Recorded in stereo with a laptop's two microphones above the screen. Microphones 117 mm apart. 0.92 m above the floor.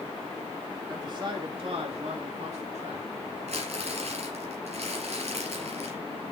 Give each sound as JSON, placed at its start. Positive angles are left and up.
{"t": 0.9, "sound": "a man speaking", "side_deg": -30, "distance_m": 1.5}
{"t": 3.5, "sound": "crumpling", "side_deg": -65, "distance_m": 3.0}